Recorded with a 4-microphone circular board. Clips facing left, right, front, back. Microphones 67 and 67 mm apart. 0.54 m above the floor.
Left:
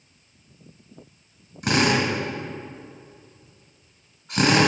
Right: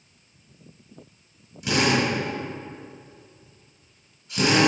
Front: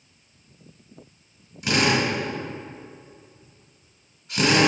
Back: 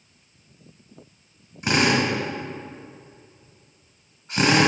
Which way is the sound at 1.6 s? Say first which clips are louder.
Left 1 dB, back 1 dB; 130° left.